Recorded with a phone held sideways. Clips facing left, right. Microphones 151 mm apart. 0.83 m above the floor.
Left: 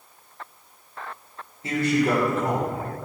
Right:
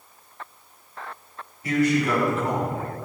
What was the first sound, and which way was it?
A man speaking, 25° left (ahead or behind).